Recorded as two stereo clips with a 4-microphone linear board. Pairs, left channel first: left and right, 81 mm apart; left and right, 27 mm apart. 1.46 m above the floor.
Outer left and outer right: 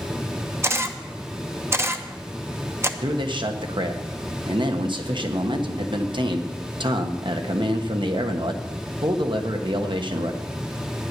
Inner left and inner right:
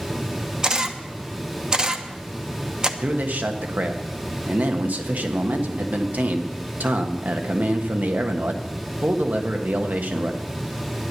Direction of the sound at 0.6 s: 30° right (ahead or behind).